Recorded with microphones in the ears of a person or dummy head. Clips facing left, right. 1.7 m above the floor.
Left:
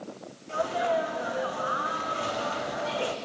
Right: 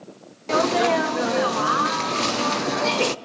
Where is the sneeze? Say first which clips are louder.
Right 7 dB; 75° right (ahead or behind), 0.6 m.